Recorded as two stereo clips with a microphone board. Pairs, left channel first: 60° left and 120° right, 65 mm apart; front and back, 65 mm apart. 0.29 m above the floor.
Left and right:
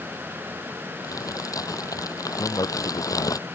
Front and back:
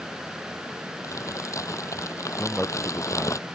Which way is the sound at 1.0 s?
35° left.